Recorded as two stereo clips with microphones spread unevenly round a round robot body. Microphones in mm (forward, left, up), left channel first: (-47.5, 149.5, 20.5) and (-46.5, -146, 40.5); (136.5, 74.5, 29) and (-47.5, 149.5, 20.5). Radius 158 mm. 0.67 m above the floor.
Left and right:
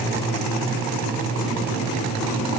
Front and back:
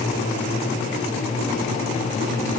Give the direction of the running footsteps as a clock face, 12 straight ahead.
No running footsteps in this recording.